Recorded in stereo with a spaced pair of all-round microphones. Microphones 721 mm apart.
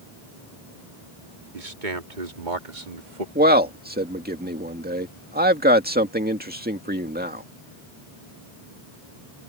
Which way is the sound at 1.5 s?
85° right.